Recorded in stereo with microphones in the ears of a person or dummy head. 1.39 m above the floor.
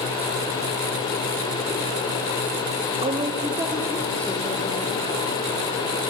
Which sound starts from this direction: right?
A woman speaking, at 3.0 s.